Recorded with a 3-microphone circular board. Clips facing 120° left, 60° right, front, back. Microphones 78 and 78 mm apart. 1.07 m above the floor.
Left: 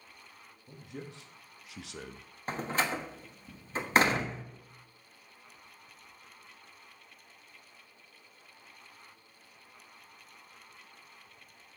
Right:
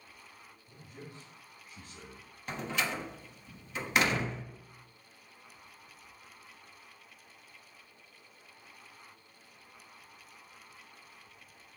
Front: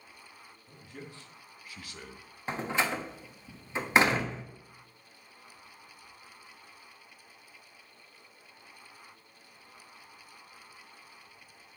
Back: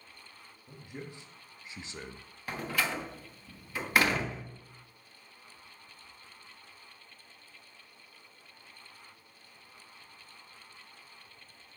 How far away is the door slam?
About 1.1 m.